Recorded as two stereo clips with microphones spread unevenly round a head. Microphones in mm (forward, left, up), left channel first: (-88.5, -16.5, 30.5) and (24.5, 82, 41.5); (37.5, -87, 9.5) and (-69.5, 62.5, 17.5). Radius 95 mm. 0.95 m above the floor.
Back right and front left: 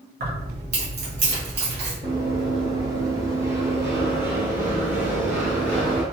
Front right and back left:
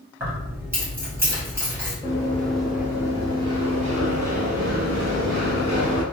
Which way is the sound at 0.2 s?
45° left.